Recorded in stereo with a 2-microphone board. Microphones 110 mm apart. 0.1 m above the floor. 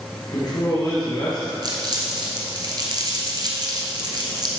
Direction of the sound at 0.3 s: 40° left (ahead or behind).